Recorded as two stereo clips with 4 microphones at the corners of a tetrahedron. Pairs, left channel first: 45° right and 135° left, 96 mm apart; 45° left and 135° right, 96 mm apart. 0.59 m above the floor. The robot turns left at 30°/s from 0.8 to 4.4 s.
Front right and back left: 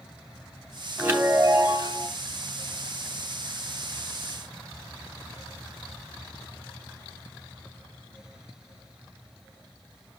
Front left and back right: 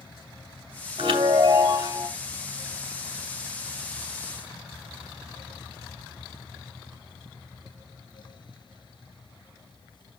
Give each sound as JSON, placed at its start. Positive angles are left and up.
{"t": 1.0, "sound": "a chime", "azimuth_deg": -150, "distance_m": 2.5}